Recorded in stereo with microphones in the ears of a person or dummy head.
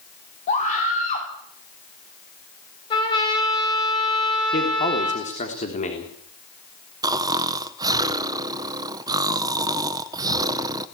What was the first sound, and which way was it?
A scream, 40° left (ahead or behind).